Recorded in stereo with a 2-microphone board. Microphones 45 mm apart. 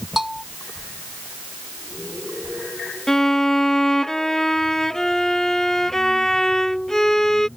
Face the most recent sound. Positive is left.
turn(degrees=10)  # may be behind; listen again after turning